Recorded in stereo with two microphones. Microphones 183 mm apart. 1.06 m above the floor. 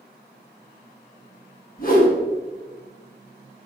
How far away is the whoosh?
About 1.9 m.